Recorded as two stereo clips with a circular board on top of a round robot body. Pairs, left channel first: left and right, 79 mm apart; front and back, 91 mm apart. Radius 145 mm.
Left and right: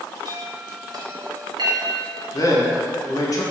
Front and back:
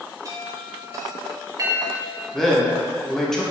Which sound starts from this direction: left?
A man speaking, at 2.3 s.